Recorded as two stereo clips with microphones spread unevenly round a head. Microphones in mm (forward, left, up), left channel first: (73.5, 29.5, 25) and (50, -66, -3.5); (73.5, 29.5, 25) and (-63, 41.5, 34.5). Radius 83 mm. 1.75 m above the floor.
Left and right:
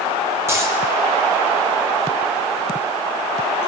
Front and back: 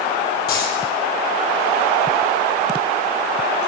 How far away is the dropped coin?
About 10 m.